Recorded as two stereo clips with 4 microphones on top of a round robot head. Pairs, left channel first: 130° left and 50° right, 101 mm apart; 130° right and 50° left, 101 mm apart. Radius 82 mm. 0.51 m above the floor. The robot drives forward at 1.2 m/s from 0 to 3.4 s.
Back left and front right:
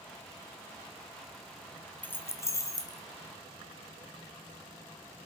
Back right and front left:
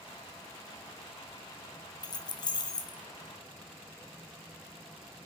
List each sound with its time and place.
2.0 s keys jangling: 160° right, 0.8 m; by 3.0 s 175° right, 1.8 m